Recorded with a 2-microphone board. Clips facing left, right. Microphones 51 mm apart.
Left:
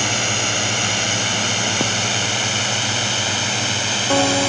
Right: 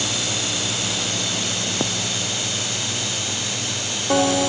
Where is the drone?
55° left (ahead or behind); by 4.5 s 65° left (ahead or behind).